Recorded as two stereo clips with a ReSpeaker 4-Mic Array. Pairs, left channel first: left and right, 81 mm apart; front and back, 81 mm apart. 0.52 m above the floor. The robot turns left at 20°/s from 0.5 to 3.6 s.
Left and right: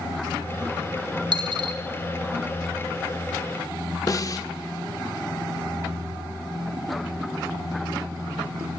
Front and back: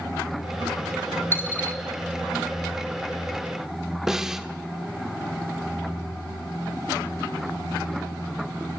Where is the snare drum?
95° left, 1.5 m.